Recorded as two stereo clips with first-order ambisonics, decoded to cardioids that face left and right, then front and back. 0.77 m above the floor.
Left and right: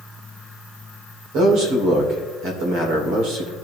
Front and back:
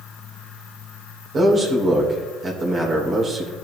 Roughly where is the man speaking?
Behind right.